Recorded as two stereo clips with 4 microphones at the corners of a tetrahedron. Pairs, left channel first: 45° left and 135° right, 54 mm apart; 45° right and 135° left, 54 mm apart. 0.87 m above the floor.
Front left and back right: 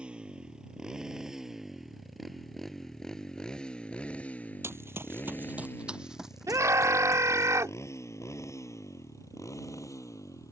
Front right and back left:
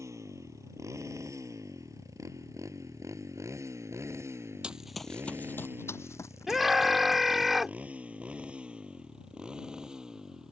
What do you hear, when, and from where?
0.0 s a motorcycle: 155° left; by 10.5 s 60° left
4.6 s running footsteps: 155° right; by 7.5 s 45° right
6.5 s a scream: 135° right